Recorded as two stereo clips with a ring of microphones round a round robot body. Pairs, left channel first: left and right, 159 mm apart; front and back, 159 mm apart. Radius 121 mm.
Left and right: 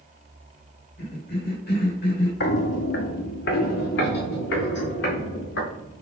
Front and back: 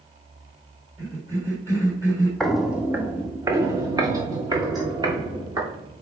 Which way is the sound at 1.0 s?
110° left.